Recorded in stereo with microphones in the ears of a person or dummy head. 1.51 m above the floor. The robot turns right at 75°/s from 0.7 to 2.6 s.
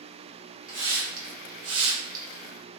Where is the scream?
I don't hear a scream.